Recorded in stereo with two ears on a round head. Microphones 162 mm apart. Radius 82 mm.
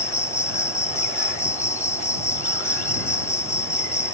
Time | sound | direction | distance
0.0 | an insect | 15° left (ahead or behind) | ?